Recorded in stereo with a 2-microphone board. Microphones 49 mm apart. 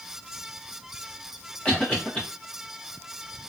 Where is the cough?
25° left (ahead or behind), 1.4 m.